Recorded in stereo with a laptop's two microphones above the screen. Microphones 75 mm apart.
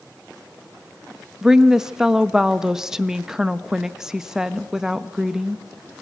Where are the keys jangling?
No keys jangling in this recording.